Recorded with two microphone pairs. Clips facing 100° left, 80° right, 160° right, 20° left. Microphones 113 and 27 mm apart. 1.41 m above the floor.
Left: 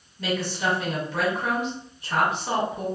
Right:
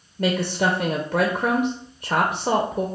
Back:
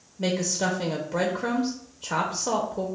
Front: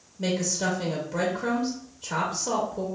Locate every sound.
0.2 s a woman speaking: 100° right, 0.5 m